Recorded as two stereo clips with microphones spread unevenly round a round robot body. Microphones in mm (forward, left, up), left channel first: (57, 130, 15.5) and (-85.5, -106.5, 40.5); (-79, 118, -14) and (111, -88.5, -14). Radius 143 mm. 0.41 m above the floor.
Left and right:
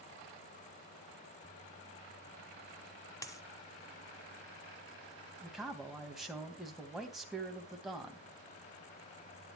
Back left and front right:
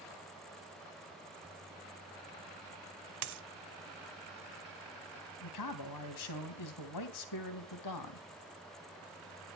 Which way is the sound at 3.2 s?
20° right.